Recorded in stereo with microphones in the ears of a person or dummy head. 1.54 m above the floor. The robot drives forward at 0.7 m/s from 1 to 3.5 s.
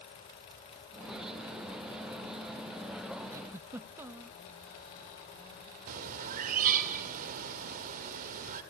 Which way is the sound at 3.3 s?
25° right (ahead or behind).